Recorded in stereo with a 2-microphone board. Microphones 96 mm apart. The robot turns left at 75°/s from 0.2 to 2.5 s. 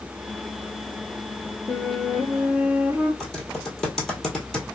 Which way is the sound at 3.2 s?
5° left (ahead or behind).